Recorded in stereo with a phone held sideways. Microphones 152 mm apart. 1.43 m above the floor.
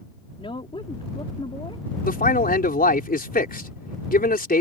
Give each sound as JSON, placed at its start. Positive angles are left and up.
{"t": 0.4, "sound": "a woman speaking", "side_deg": 35}
{"t": 2.0, "sound": "a man speaking", "side_deg": 75}